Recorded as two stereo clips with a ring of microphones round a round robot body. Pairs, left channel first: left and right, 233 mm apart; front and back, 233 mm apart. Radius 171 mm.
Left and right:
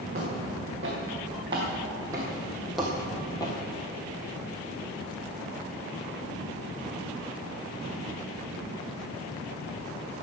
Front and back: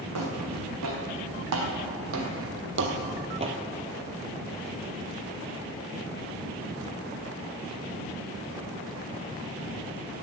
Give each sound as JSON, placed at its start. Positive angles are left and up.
{"t": 0.1, "sound": "footsteps", "azimuth_deg": -160, "distance_m": 3.5}